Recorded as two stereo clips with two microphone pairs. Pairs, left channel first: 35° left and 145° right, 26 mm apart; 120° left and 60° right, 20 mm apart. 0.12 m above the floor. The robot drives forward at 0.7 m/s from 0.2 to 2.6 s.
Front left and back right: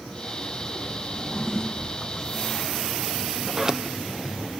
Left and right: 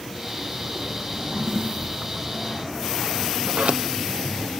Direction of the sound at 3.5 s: 70° right.